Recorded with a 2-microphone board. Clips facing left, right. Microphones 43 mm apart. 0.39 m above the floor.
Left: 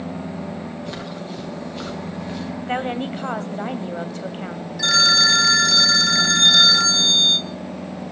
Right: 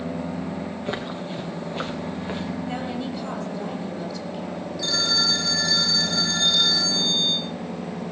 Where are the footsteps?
25° right (ahead or behind), 6 m; by 2.5 s 30° right (ahead or behind), 4 m.